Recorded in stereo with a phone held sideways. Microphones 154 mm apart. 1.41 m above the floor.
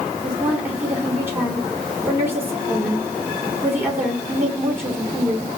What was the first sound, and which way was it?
A woman speaking, 15° right (ahead or behind).